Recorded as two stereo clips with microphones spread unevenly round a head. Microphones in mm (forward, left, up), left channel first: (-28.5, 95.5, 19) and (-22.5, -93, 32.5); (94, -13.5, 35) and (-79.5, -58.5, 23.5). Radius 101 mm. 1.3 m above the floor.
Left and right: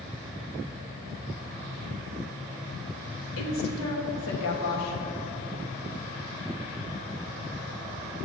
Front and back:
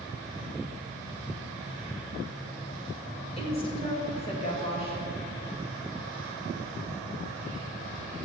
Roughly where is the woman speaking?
Left.